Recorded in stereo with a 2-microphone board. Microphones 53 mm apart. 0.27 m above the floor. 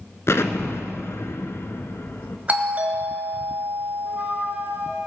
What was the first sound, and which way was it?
An explosion, 60° left (ahead or behind).